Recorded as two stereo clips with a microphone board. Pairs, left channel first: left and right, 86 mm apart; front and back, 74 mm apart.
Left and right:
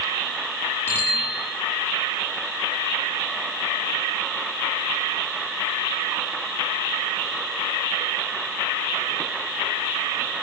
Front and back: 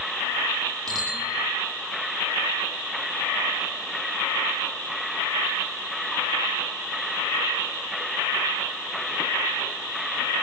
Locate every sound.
0.9 s a bicycle bell: 155° left, 9 m